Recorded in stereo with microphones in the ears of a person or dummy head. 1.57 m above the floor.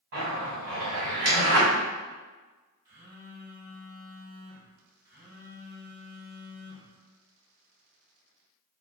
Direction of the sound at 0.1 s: 50° right (ahead or behind).